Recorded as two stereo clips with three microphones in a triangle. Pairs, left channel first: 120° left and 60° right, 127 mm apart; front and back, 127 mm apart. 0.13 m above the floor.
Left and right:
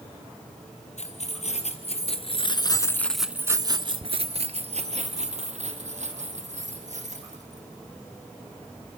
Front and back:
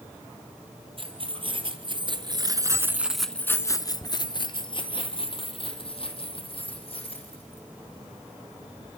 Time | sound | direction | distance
1.0 | keys jangling | 135° left | 2.5 m